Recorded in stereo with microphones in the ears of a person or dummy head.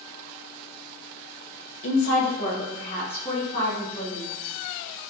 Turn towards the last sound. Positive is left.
turn(degrees=25)  # may be behind; listen again after turning